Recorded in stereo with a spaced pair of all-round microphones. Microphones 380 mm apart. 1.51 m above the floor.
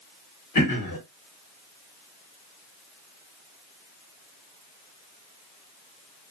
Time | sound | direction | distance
0.6 | throat clearing | 60° left (ahead or behind) | 1.0 m